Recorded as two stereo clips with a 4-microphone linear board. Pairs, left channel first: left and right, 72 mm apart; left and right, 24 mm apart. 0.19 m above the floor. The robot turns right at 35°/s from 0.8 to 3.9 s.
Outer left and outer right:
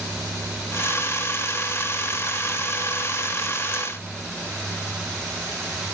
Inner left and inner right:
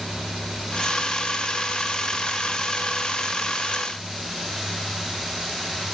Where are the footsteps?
No footsteps in this recording.